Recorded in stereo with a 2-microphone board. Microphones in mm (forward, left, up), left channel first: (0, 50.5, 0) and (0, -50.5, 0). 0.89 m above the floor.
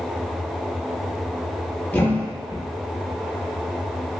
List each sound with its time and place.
1.9 s a thud: 20° left (ahead or behind), 0.6 m